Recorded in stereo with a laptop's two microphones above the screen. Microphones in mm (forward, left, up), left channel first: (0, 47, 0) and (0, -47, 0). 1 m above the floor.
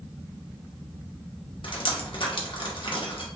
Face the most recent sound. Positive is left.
turn(degrees=65)  # may be behind; listen again after turning